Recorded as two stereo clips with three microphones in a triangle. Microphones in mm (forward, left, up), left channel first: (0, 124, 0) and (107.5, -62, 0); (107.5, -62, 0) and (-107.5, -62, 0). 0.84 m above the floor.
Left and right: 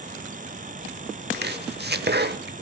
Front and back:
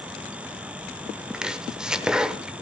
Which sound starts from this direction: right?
Chopping, at 1.3 s.